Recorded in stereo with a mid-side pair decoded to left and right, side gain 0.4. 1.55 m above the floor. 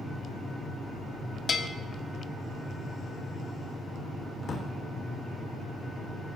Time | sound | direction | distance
1.5 | a bell | 40° left | 1.0 m
4.4 | a drawer | 55° left | 3 m